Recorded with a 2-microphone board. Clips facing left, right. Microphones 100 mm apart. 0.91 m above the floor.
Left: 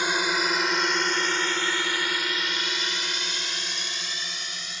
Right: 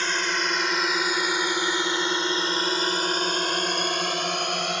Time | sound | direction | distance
0.0 | a drone | 10° left (ahead or behind) | ?